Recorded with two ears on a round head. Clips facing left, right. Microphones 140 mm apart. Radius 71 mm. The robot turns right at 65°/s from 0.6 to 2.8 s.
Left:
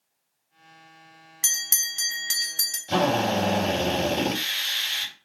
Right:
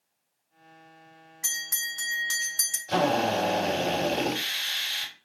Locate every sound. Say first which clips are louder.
1.4 s a bell: right 1 dB; 100° left, 0.6 m; by 2.8 s 170° right, 0.6 m
2.9 s a drill: left 1 dB; 30° left (ahead or behind), 1.6 m